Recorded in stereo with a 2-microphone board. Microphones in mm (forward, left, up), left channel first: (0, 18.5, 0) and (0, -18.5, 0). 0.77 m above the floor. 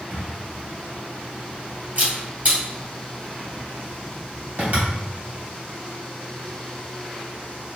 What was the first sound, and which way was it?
A camera shutter, 50° right (ahead or behind).